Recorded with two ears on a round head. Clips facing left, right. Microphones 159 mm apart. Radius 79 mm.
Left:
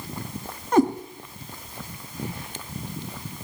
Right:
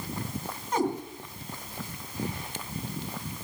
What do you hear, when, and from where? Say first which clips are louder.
0.7 s a cat meowing: left 8 dB; 50° left (ahead or behind), 2.5 m